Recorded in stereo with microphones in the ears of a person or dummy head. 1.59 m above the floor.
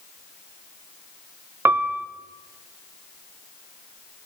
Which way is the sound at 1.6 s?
10° right (ahead or behind).